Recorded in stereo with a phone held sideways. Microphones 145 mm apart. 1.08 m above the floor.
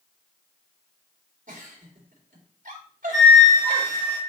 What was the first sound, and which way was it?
A giggle, 90° right.